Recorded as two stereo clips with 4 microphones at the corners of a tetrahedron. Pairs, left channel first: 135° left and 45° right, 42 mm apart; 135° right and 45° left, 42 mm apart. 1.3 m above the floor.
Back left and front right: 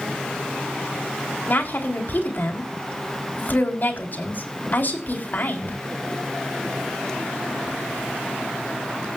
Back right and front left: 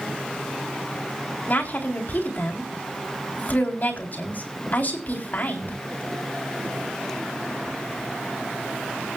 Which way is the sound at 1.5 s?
Straight behind.